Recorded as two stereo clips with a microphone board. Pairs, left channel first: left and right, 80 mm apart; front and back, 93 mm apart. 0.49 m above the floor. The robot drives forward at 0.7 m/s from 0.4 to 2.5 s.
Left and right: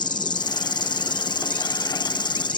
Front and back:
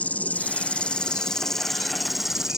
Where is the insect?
75° left; by 2.6 s 95° left.